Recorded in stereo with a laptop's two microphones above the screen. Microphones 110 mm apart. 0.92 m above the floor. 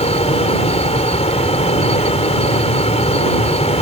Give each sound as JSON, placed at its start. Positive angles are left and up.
{"t": 0.0, "sound": "a fan", "side_deg": 75}